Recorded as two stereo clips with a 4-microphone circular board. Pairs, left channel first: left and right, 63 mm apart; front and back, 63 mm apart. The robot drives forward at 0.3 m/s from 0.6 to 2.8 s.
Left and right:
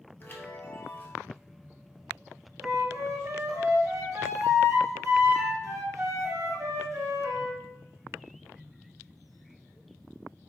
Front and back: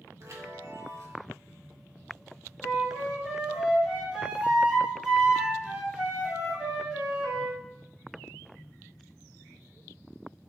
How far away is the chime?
About 1.0 m.